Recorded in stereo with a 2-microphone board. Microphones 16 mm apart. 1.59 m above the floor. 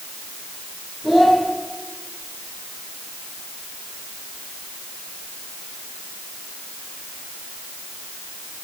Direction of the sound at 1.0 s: 30° right (ahead or behind).